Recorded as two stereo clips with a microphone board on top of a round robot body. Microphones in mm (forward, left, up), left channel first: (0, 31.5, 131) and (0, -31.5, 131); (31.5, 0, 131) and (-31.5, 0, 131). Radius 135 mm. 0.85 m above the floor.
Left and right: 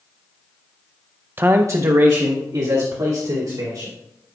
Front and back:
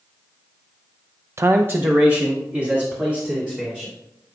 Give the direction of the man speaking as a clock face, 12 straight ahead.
5 o'clock.